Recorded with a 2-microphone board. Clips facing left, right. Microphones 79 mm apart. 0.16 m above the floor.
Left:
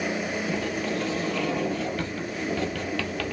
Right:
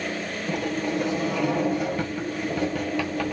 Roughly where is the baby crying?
No baby crying in this recording.